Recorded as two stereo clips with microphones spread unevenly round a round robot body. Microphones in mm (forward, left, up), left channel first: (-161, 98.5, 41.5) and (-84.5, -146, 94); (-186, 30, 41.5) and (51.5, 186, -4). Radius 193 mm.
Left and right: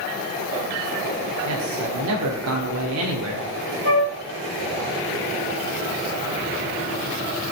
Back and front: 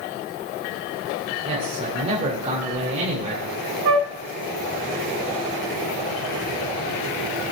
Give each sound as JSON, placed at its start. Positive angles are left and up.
{"t": 1.4, "sound": "a man speaking", "azimuth_deg": -35, "distance_m": 1.8}
{"t": 3.9, "sound": "a flute", "azimuth_deg": -15, "distance_m": 2.5}